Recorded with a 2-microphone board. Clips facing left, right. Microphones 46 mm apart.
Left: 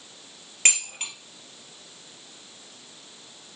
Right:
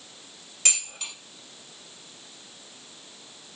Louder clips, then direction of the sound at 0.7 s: Left 5 dB; 50° left (ahead or behind).